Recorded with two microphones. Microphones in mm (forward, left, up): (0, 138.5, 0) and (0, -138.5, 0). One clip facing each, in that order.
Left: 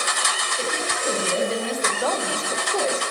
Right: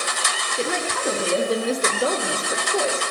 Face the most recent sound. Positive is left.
turn(degrees=5)  # may be behind; listen again after turning